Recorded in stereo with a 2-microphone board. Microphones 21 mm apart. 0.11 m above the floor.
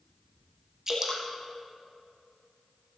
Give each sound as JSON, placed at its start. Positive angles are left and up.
{"t": 0.9, "sound": "dripping", "side_deg": -25, "distance_m": 3.0}